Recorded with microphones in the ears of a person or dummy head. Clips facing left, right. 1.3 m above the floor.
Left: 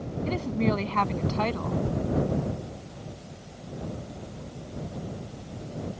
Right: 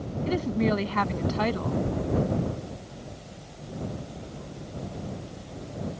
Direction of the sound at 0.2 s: 15° right (ahead or behind).